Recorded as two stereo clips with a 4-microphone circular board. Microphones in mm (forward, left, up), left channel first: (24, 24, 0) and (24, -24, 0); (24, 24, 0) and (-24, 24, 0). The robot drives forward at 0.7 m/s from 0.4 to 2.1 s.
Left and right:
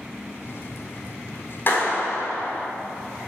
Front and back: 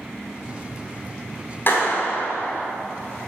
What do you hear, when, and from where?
1.7 s a clap: 45° left, 3 m; by 2.6 s 50° left, 3 m